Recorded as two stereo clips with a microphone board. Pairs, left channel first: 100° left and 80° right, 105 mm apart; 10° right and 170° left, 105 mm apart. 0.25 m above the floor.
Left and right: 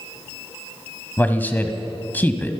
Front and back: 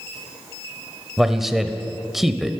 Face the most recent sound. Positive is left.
turn(degrees=85)